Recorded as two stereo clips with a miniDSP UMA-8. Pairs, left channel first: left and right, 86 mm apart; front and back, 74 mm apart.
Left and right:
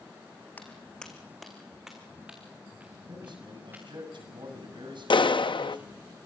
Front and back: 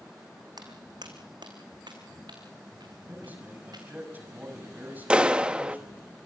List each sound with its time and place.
0.6 s footsteps: 160° left, 3 m; by 3.8 s 160° right, 6.5 m
3.1 s a man speaking: 115° right, 6.5 m
5.1 s a clap: 105° left, 0.6 m